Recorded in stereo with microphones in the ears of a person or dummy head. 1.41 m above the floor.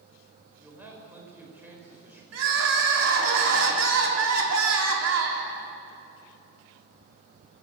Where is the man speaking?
10° right (ahead or behind), 5.5 m.